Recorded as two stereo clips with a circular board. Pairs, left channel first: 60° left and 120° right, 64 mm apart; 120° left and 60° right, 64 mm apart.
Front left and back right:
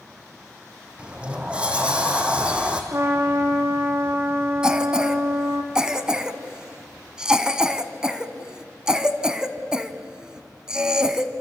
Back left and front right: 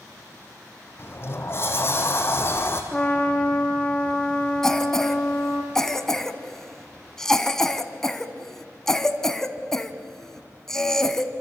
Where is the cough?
170° right, 1.2 m.